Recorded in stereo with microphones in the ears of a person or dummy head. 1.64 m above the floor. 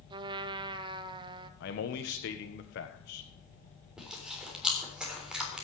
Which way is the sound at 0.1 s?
25° right (ahead or behind).